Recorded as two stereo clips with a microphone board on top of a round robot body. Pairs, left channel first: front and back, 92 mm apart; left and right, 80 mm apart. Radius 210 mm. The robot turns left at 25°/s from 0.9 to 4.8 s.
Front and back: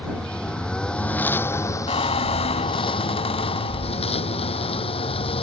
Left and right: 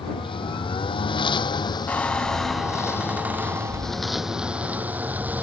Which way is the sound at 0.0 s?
80° left.